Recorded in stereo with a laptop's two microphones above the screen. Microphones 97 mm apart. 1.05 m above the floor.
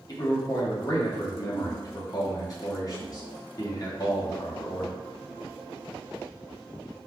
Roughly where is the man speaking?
Left.